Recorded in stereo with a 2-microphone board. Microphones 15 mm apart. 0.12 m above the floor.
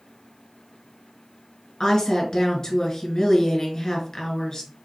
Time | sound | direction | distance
1.8 | a woman speaking | 35° left (ahead or behind) | 1.3 m